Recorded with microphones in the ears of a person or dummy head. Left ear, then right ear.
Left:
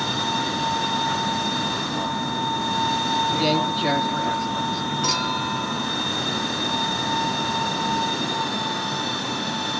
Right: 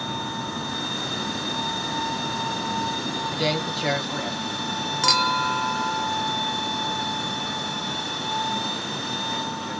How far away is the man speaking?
About 1.5 m.